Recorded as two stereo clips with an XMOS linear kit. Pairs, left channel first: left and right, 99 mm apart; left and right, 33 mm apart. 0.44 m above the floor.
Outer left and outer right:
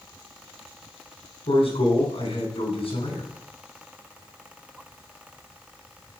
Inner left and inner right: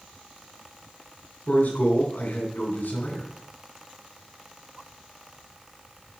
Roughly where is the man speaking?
Left.